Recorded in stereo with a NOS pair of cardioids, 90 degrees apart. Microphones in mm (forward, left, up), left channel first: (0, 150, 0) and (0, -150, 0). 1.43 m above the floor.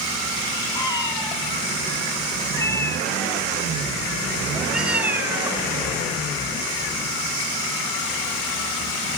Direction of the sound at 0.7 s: 15° left.